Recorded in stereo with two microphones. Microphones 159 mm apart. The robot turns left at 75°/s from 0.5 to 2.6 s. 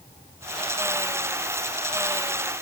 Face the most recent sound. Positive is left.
No sound to turn to.